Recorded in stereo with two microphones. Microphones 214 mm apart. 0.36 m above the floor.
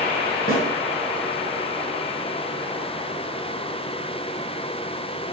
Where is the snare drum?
40° left (ahead or behind), 4 m.